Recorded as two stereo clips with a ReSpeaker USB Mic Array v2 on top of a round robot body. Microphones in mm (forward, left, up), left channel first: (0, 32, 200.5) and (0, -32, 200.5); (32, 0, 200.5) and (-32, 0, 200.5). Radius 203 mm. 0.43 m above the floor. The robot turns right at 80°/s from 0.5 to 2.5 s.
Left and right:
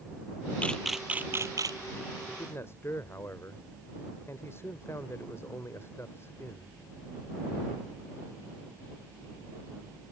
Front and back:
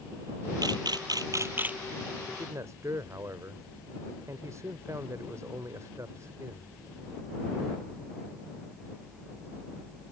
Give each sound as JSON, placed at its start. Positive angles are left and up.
{"t": 0.6, "sound": "a camera shutter", "azimuth_deg": 160}
{"t": 2.3, "sound": "a man speaking", "azimuth_deg": 120}